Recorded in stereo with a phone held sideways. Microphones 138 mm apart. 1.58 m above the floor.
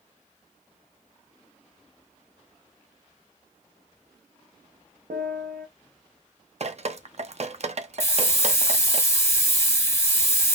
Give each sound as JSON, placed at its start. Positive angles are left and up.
{"t": 5.1, "sound": "a piano", "side_deg": -75, "distance_m": 0.8}
{"t": 6.6, "sound": "dripping", "side_deg": -50, "distance_m": 0.5}
{"t": 8.0, "sound": "a hiss", "side_deg": 20, "distance_m": 1.5}